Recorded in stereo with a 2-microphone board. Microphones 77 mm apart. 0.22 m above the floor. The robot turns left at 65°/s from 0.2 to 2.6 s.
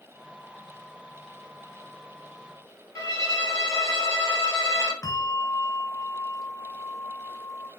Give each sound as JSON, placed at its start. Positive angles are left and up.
{"t": 3.0, "sound": "a violin", "side_deg": 45, "distance_m": 1.9}
{"t": 5.0, "sound": "a bell", "side_deg": 50, "distance_m": 2.0}